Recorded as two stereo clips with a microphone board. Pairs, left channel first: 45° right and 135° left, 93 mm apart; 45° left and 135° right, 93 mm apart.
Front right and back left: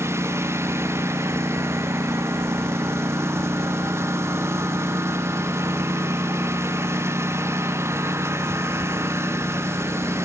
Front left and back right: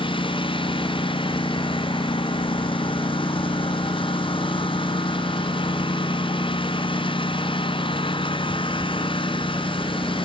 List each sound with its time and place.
0.0 s a lawn mower: 75° left